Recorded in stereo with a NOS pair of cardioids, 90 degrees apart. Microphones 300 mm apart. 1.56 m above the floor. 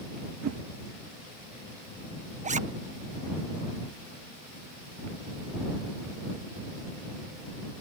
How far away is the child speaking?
No child speaking in this recording.